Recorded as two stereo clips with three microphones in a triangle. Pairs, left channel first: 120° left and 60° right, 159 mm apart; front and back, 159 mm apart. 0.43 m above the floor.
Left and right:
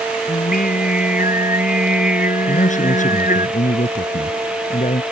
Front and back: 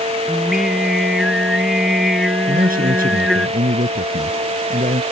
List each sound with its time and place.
0.3 s singing: 90° left
2.5 s a man speaking: 155° left